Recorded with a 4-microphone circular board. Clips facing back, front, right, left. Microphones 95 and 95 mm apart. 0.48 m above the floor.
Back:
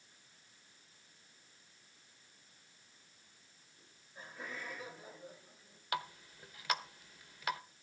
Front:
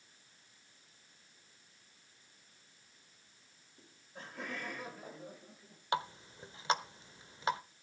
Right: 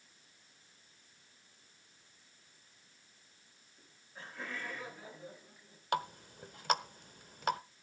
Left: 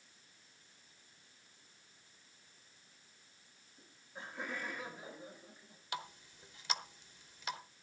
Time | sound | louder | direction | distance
3.8 | laughter | front 3 dB, left 2 dB | 15° left | 7 m
5.9 | a running tap | front 4 dB, right 9 dB | 60° right | 1.0 m